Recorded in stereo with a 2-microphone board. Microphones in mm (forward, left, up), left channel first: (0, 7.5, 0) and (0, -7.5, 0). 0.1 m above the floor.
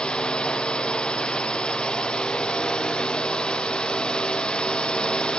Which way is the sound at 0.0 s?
80° left.